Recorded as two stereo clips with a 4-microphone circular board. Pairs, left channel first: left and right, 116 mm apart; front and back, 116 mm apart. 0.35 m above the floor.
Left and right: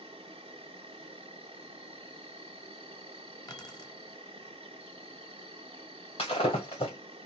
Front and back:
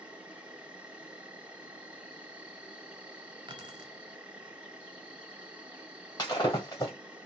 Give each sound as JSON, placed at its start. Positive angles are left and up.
{"t": 0.0, "sound": "an insect", "azimuth_deg": -105, "distance_m": 0.9}
{"t": 3.5, "sound": "keys jangling", "azimuth_deg": 140, "distance_m": 1.0}
{"t": 6.2, "sound": "breaking glass", "azimuth_deg": 55, "distance_m": 1.7}